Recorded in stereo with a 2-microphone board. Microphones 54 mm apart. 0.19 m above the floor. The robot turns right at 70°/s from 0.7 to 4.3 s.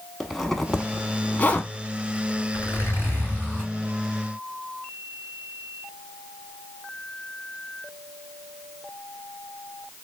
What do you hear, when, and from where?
0.2 s a zipper: 5° left (ahead or behind), 0.7 m; by 1.7 s 45° left (ahead or behind), 0.7 m
2.5 s a zipper: 85° left, 2.5 m; by 3.7 s 165° left, 2.5 m